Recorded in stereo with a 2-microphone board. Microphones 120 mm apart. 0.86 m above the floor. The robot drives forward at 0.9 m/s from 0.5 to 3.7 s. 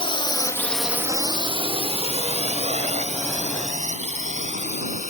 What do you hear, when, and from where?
0.0 s a drone: 50° left (ahead or behind); by 5.1 s 80° right